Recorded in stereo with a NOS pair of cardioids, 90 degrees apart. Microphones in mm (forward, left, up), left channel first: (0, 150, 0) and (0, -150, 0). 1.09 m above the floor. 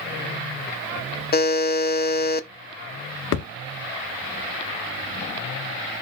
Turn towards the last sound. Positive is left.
turn(degrees=50)